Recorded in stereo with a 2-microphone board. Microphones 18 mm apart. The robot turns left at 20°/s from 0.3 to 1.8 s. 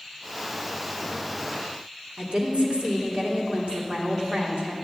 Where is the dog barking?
I don't hear a dog barking.